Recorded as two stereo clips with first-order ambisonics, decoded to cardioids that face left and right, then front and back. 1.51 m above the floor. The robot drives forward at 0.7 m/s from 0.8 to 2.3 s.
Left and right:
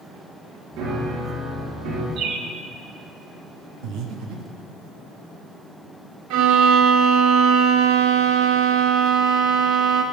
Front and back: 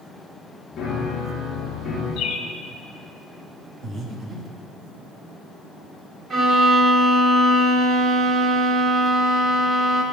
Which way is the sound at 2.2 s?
45° right.